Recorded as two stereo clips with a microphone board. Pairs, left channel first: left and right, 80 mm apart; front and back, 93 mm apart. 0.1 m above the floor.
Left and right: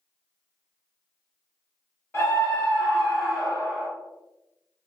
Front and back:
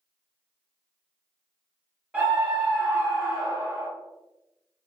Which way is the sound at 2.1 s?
120° left.